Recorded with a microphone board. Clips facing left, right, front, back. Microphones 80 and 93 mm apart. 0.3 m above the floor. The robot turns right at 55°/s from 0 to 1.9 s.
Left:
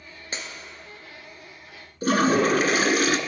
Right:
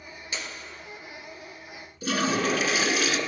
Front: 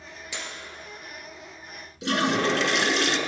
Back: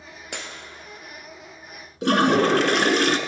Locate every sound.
0.3 s breaking glass: 145° left, 1.5 m; by 0.5 s 150° left, 1.5 m
2.0 s a toilet flushing: 135° left, 0.6 m